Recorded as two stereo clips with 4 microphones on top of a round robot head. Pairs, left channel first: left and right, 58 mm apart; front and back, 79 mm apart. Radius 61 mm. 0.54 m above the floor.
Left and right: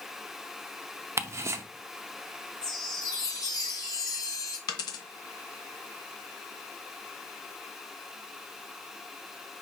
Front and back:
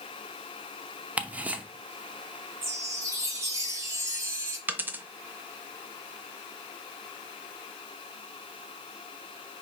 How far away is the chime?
About 1.6 m.